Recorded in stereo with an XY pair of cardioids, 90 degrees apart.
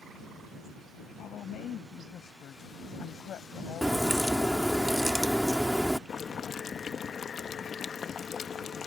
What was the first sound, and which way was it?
A woman speaking, 70° left.